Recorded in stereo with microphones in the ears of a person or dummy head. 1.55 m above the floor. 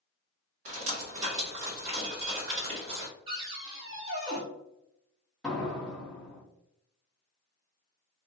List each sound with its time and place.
0.7 s dripping: 45° right (ahead or behind), 1.5 m
3.3 s a cupboard door: 30° right (ahead or behind), 0.7 m
5.4 s a door slam: 5° left (ahead or behind), 0.7 m